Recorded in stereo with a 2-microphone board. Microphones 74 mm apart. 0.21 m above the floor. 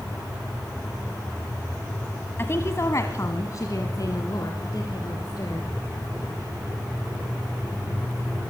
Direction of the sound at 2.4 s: 35° left (ahead or behind).